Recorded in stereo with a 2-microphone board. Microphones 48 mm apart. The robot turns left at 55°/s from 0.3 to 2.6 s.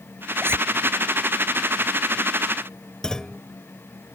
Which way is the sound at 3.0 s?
15° left (ahead or behind).